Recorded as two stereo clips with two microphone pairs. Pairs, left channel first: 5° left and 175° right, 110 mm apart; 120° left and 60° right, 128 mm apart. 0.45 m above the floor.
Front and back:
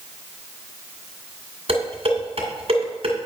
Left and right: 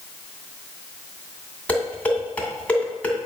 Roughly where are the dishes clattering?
Behind.